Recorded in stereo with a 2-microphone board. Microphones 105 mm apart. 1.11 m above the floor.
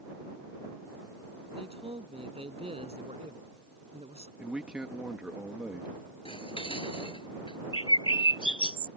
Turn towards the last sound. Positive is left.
turn(degrees=55)  # may be behind; listen again after turning